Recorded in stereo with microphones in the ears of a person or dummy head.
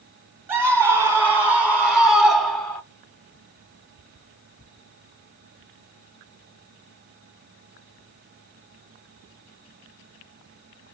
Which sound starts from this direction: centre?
A scream, at 0.5 s.